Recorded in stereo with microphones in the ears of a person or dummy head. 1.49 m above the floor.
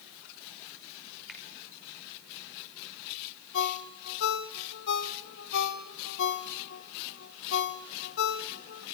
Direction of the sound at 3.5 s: 65° left (ahead or behind).